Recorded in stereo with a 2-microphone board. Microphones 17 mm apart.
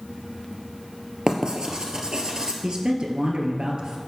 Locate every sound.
1.3 s writing: 50° right (ahead or behind), 1.6 m
2.6 s a man speaking: 50° right (ahead or behind), 2.5 m